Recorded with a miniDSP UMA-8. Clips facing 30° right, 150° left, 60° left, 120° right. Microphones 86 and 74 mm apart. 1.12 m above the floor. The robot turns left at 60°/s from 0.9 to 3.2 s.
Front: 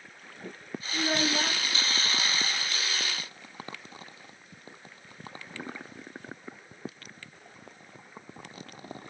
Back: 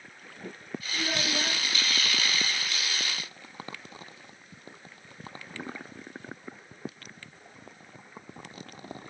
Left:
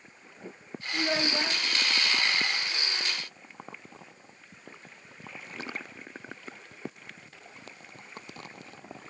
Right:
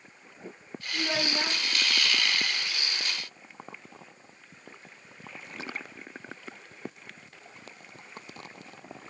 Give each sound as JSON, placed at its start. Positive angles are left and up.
{"t": 0.9, "sound": "a child speaking", "azimuth_deg": -15, "distance_m": 2.0}